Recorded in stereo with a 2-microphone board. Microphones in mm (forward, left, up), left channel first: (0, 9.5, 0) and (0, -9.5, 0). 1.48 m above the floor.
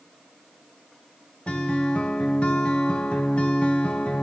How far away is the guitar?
About 0.6 m.